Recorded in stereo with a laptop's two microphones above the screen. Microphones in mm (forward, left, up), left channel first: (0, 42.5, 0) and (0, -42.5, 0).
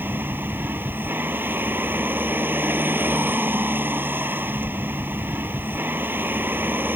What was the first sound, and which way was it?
A vehicle, 25° right (ahead or behind).